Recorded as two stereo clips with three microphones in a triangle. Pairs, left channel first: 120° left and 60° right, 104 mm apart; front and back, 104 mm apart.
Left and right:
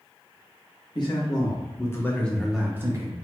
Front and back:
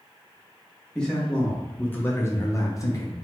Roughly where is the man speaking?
Left.